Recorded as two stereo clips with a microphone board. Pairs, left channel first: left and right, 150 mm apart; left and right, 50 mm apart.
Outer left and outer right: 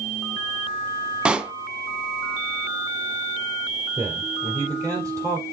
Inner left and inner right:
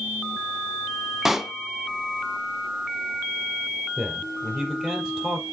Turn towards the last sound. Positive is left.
turn(degrees=-25)  # may be behind; listen again after turning